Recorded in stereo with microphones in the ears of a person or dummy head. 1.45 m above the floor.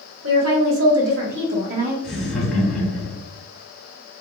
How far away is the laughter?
About 0.7 m.